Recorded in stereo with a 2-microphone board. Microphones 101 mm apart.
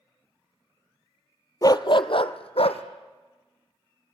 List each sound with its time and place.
1.6 s a dog barking: 35° left (ahead or behind), 0.8 m; by 2.8 s 75° left (ahead or behind), 1.6 m